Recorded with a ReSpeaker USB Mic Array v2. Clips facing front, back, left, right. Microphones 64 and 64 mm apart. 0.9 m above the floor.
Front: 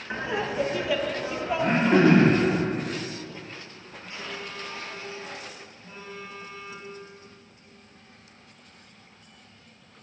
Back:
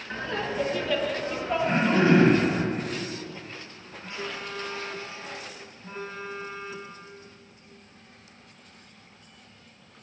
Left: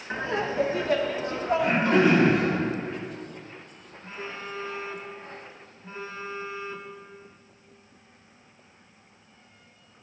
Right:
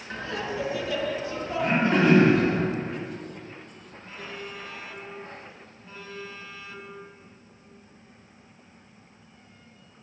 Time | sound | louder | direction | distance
0.1 | laughter | front 2 dB, left 4 dB | 55° left | 0.7 m
1.6 | throat clearing | front 3 dB, even | 5° left | 1.8 m
4.0 | a phone buzzing | back 2 dB, left 2 dB | 145° left | 0.7 m